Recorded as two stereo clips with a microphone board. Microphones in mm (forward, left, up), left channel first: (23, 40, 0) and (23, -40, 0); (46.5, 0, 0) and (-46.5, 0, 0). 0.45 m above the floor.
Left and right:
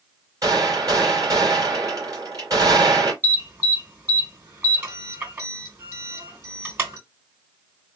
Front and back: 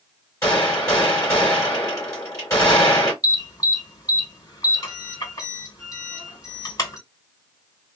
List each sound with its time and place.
0.4 s a gunshot: 55° right, 2.5 m
3.2 s an alarm: 40° right, 3 m